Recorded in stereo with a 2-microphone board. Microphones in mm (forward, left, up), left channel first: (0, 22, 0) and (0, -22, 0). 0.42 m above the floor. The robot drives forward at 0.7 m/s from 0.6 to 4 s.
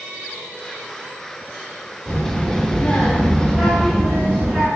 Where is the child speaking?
15° left (ahead or behind), 0.8 m; by 4.7 s 10° left (ahead or behind), 1.1 m.